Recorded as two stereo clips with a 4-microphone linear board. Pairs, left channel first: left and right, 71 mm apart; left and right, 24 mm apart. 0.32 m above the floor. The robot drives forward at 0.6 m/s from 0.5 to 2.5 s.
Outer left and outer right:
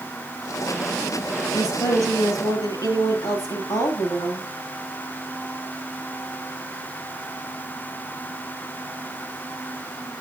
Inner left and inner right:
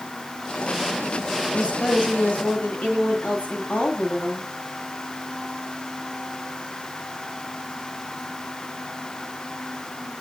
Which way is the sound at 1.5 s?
75° left (ahead or behind).